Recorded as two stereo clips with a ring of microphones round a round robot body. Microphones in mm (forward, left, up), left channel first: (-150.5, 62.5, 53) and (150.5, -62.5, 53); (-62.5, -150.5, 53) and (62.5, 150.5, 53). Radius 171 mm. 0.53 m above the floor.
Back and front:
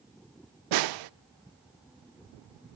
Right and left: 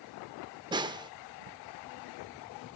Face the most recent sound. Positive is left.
turn(degrees=-10)